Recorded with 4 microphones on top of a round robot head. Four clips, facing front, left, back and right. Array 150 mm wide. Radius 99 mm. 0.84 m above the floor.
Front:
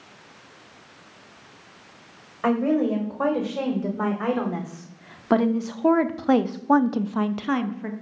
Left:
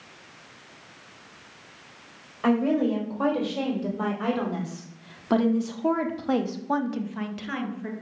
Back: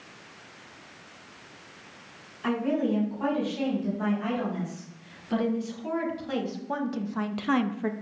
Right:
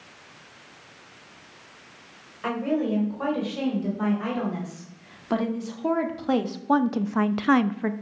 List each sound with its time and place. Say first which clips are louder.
2.4 s a woman speaking: left 3 dB, front 5 dB; 20° left, 4 m; by 7.9 s 110° right, 0.8 m